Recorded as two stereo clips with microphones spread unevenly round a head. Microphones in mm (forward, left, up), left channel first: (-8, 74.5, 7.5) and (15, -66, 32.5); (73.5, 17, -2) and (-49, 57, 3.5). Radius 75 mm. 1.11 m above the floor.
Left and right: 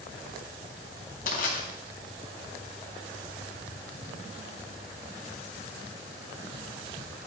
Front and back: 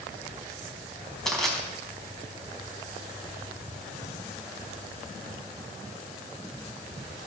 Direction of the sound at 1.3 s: 70° left.